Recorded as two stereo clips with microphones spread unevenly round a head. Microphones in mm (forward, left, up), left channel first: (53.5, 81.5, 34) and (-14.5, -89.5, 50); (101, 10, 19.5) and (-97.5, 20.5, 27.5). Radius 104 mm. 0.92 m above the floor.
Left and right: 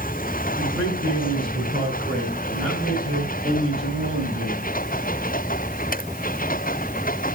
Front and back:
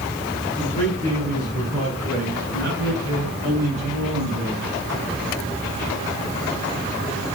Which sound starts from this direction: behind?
A man speaking, at 0.6 s.